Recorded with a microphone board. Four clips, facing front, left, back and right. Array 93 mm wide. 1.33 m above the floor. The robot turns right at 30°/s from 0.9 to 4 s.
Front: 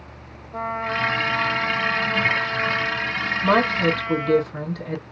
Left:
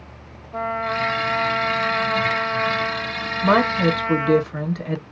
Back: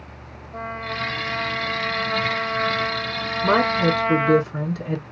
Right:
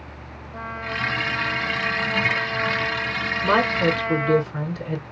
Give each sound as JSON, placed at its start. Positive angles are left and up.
{"t": 0.5, "sound": "a trumpet", "azimuth_deg": 70, "distance_m": 0.9}
{"t": 3.4, "sound": "a woman speaking", "azimuth_deg": 85, "distance_m": 1.4}